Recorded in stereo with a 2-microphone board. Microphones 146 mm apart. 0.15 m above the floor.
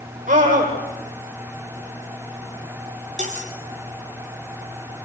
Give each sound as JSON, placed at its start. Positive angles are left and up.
{"t": 0.3, "sound": "a scream", "side_deg": -55, "distance_m": 6.5}
{"t": 3.2, "sound": "cutlery clinking", "side_deg": -50, "distance_m": 3.0}